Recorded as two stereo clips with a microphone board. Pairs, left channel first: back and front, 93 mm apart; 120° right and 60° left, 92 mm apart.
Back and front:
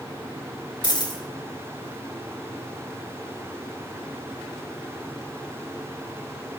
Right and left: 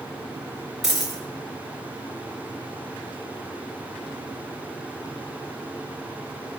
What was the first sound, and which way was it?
A dropped coin, 145° left.